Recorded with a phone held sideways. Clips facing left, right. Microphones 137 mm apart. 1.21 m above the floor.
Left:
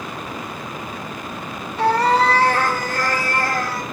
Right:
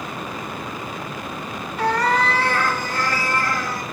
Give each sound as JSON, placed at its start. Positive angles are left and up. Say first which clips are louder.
{"t": 1.8, "sound": "a cat meowing", "louder": "left 4 dB", "side_deg": 25, "distance_m": 0.9}